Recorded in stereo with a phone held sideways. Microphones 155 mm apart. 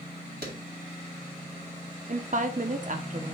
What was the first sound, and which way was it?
A clap, 75° right (ahead or behind).